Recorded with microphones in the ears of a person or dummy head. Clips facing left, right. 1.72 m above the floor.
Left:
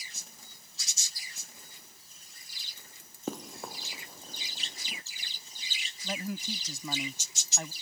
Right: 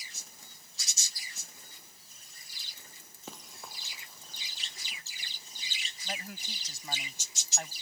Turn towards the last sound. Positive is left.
turn(degrees=90)